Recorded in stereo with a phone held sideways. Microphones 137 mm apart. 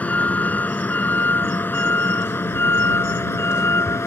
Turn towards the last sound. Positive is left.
turn(degrees=20)  # may be behind; listen again after turning